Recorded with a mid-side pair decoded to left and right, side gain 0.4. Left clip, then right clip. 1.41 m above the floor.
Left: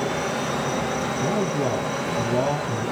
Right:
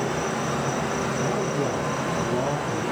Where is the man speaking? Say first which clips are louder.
Left 1 dB; 35° left, 1.8 m.